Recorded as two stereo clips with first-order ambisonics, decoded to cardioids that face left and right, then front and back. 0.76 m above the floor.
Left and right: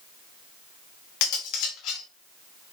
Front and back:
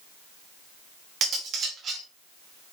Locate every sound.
1.2 s cutlery clinking: 120° left, 1.0 m